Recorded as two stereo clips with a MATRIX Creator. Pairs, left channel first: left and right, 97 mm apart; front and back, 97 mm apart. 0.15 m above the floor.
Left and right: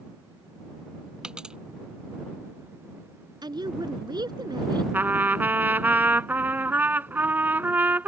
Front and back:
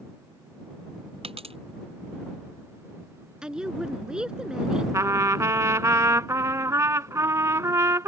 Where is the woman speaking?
100° right.